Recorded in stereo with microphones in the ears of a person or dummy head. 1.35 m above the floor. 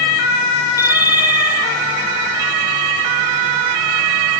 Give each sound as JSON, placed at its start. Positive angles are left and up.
{"t": 0.8, "sound": "a bicycle bell", "side_deg": 15}